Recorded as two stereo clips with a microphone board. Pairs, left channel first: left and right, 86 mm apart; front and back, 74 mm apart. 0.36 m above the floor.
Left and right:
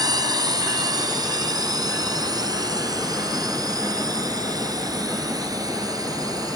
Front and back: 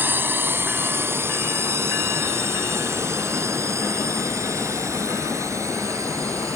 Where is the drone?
120° right; by 6.6 s 135° right.